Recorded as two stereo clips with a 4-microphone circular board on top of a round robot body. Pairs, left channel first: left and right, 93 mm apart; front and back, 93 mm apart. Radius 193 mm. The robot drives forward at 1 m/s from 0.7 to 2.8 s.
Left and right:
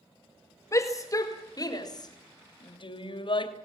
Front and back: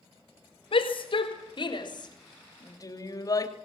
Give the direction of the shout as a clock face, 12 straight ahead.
11 o'clock.